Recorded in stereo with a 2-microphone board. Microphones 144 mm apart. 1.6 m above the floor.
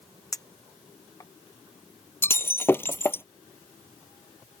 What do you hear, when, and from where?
0.3 s a clink: 25° left (ahead or behind)
2.2 s breaking glass: 15° left (ahead or behind)